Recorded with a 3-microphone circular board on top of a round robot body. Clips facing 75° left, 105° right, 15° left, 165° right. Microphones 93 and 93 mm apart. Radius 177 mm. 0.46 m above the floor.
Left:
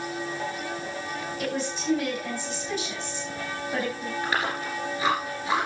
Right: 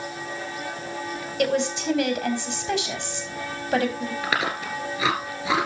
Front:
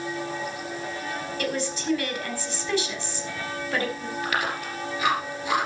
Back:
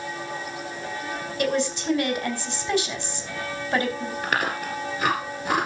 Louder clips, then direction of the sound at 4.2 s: Right 1 dB, back 1 dB; 110° right.